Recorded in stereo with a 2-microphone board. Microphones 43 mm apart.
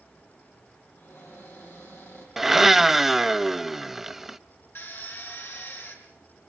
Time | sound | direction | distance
1.0 | a cupboard door | 70° left (ahead or behind) | 9.5 m
2.4 | a blender | 5° right (ahead or behind) | 0.6 m
4.8 | a drill | 85° left | 5 m